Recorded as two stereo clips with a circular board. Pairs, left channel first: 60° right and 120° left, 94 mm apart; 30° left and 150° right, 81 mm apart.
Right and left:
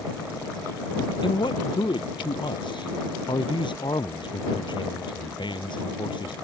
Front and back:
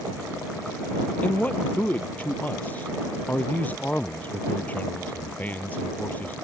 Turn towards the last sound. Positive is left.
turn(degrees=-35)